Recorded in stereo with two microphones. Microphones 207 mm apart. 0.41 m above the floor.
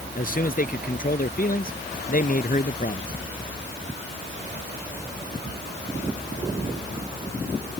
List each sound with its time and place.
0.1 s a man speaking: 45° left (ahead or behind)